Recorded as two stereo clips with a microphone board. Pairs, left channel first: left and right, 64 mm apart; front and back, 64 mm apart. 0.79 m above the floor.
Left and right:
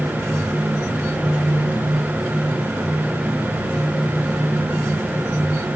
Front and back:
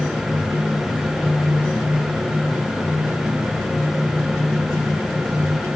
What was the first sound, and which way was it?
Only background noise.